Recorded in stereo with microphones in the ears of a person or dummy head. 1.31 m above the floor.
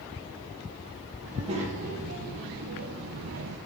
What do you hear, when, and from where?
1.2 s a child speaking: 35° right (ahead or behind), 1.5 m; by 3.6 s 50° right (ahead or behind), 0.6 m